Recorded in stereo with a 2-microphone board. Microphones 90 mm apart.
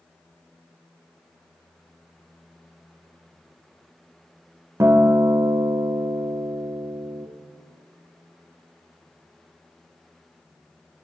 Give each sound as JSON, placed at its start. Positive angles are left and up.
{"t": 4.8, "sound": "a guitar", "side_deg": -30, "distance_m": 0.6}